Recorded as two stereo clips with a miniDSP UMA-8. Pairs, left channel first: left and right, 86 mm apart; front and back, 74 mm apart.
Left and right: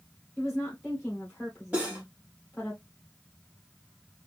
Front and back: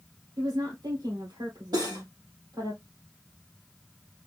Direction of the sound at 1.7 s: 165° right.